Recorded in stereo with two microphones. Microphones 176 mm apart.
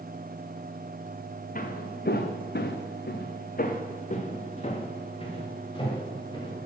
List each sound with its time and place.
1.6 s footsteps: 55° left (ahead or behind), 1.1 m; by 6.7 s 25° left (ahead or behind), 3 m